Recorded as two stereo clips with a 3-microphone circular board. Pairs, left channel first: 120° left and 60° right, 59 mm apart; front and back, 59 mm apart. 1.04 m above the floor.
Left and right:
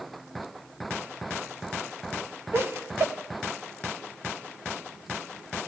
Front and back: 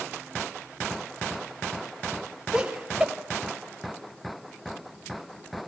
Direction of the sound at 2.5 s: 100° right.